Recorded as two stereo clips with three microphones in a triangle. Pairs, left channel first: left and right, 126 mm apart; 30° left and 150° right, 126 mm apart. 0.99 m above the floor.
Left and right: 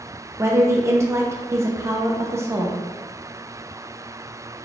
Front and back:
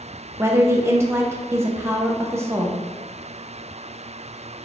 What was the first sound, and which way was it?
A woman speaking, 115° right.